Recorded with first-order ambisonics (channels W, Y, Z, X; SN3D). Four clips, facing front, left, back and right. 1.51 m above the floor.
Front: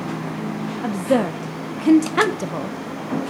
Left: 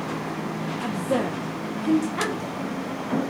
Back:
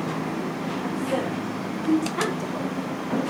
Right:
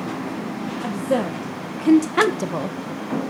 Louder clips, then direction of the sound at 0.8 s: Right 3 dB, front 8 dB; 5° right.